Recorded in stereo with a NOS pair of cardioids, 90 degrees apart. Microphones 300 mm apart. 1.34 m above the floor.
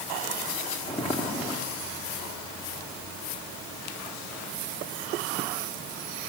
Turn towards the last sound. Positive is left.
turn(degrees=20)